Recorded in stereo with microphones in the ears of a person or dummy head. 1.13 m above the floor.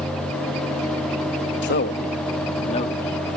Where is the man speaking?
55° left (ahead or behind); by 3.0 s 25° left (ahead or behind).